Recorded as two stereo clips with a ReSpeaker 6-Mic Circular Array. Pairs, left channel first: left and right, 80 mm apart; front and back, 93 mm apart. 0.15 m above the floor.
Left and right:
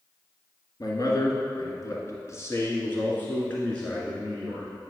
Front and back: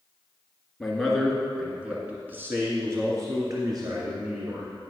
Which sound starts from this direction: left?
A man speaking, at 0.8 s.